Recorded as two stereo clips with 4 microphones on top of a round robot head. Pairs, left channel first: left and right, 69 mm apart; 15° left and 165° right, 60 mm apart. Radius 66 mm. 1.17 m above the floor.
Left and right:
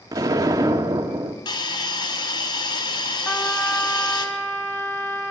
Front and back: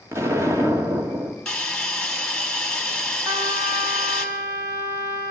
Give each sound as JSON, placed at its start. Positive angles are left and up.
{"t": 0.1, "sound": "an explosion", "azimuth_deg": -120, "distance_m": 2.0}
{"t": 1.4, "sound": "a hiss", "azimuth_deg": 90, "distance_m": 5.0}
{"t": 3.2, "sound": "a trumpet", "azimuth_deg": 155, "distance_m": 4.0}